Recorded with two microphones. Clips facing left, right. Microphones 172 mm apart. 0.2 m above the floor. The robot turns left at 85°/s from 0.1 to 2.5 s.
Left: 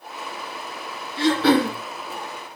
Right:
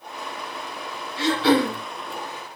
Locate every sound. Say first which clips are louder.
1.2 s throat clearing: left 2 dB; 120° left, 0.8 m; by 1.8 s 70° left, 0.8 m